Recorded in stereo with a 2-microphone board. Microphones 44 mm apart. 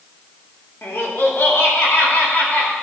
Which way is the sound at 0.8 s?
60° left (ahead or behind).